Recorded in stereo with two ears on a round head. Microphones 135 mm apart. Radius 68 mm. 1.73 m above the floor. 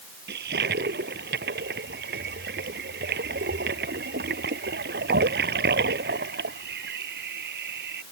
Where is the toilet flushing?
75° right (ahead or behind).